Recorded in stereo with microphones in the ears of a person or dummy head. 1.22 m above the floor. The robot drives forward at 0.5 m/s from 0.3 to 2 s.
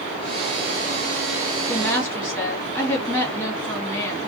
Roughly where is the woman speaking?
Centre.